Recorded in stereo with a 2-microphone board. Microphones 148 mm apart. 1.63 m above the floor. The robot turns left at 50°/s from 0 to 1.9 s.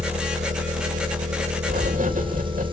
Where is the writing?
70° right (ahead or behind), 3 m; by 2.6 s 60° right (ahead or behind), 3 m.